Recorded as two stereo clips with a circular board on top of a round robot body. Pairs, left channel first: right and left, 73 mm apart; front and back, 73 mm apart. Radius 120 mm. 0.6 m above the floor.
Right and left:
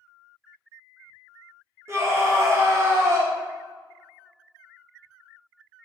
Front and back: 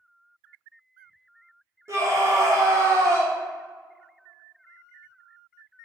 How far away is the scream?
About 1.5 m.